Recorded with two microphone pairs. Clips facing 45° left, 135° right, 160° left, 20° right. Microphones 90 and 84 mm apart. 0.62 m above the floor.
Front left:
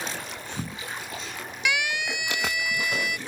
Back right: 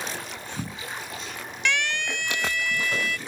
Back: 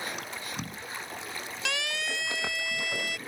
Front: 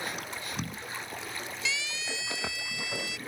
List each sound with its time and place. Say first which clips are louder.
1.6 s a siren: even, back 4 dB; 130° left; by 3.2 s 120° left